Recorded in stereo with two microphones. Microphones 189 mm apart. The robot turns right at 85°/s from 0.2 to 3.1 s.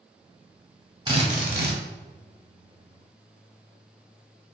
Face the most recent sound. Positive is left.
turn(degrees=20)